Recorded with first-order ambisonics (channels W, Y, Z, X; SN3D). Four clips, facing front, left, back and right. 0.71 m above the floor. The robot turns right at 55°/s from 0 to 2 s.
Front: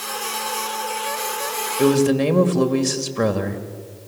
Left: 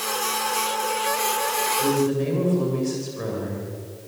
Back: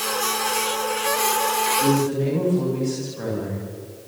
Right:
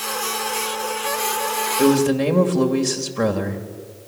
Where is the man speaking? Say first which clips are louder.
Right 9 dB, front 4 dB; 50° right, 2.5 m; by 3.6 s 35° right, 2.5 m.